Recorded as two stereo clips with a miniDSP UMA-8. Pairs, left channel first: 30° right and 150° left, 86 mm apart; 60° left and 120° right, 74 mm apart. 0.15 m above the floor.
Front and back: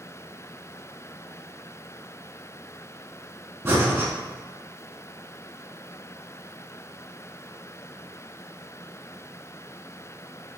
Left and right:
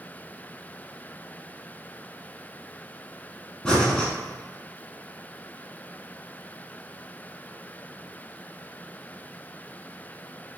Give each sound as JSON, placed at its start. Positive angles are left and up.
{"t": 3.6, "sound": "breathing", "azimuth_deg": 125, "distance_m": 0.8}